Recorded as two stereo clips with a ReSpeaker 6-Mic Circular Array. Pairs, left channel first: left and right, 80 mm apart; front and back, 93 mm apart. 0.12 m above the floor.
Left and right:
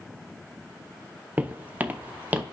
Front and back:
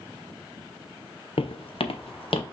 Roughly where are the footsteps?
Ahead.